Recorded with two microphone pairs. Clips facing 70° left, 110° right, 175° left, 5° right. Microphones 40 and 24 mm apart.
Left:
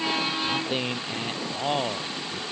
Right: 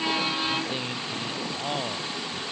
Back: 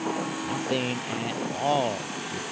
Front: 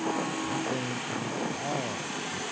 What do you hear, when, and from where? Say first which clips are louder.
0.4 s a man speaking: left 2 dB, back 3 dB; 130° left; by 2.4 s 145° left